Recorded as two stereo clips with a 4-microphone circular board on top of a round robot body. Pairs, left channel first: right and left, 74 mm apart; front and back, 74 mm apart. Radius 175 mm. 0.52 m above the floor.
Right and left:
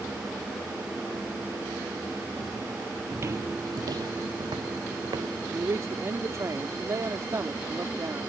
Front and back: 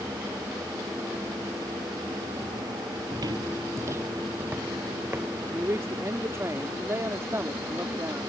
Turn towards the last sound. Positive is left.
turn(degrees=135)